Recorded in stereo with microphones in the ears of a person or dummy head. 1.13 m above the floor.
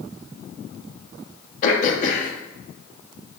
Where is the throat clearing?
55° left (ahead or behind), 1.2 m.